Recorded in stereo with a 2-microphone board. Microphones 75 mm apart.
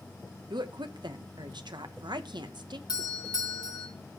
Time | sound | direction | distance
0.5 | a woman speaking | 80° right | 0.8 m
2.9 | a doorbell | 65° left (ahead or behind) | 1.7 m